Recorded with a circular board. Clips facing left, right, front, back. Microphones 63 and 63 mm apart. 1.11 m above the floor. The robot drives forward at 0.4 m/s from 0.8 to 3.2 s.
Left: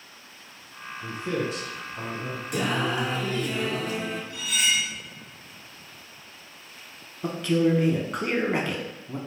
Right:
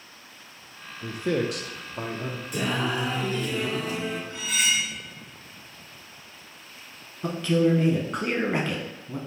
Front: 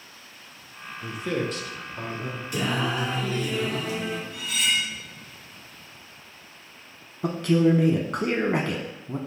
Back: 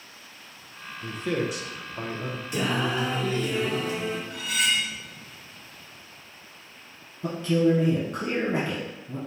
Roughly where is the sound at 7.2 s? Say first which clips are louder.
Even, front 2 dB; ahead.